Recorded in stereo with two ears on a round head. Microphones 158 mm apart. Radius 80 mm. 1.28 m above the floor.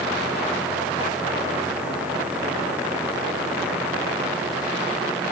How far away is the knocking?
No knocking in this recording.